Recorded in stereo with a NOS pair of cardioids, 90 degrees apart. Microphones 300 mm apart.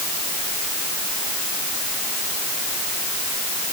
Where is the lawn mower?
I don't hear a lawn mower.